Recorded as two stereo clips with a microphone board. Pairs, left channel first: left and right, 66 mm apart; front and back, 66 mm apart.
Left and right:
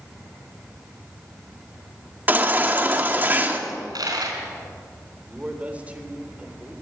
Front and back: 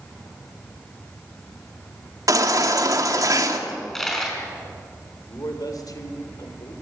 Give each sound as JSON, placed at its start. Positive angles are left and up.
{"t": 2.3, "sound": "a baby crying", "azimuth_deg": -150, "distance_m": 1.8}
{"t": 3.7, "sound": "a dropped coin", "azimuth_deg": -85, "distance_m": 4.5}
{"t": 5.3, "sound": "a man speaking", "azimuth_deg": -20, "distance_m": 3.5}